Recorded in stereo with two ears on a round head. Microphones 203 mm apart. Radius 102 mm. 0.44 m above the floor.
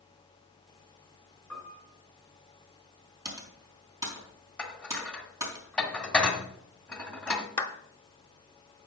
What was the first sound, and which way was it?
A piano, 5° left (ahead or behind).